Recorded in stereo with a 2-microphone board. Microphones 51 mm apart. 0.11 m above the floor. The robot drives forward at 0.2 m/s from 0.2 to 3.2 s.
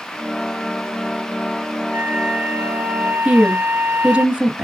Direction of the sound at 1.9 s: 45° right (ahead or behind).